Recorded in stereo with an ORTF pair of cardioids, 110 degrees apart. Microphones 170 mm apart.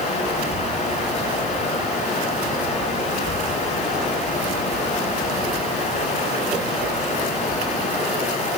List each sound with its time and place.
0.0 s running water: 40° left, 8.5 m